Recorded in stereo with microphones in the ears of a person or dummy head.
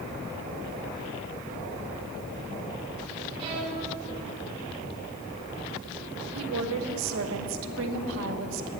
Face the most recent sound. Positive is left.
turn(degrees=-80)